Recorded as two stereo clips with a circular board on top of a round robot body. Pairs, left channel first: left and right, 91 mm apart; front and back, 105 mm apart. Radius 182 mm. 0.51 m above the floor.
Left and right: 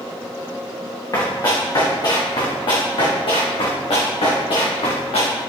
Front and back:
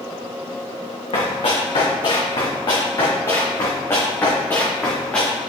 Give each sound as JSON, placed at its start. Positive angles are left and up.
{"t": 1.1, "sound": "running footsteps", "azimuth_deg": 35, "distance_m": 3.0}